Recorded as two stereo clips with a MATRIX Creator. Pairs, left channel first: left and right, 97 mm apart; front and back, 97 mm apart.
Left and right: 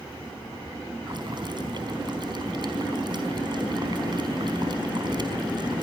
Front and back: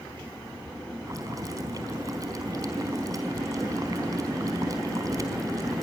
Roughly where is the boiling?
Behind right.